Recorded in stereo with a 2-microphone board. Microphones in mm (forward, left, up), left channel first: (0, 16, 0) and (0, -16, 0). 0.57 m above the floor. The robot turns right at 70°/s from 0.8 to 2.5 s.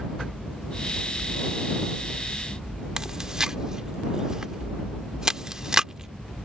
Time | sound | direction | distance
3.0 | chewing | 20° right (ahead or behind) | ?